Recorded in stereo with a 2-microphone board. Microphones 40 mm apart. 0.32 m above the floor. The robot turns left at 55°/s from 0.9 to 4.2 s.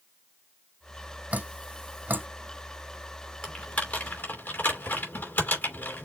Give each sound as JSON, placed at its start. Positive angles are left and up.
{"t": 1.3, "sound": "dripping", "side_deg": -40, "distance_m": 1.6}
{"t": 3.4, "sound": "typing on a keyboard", "side_deg": 25, "distance_m": 2.5}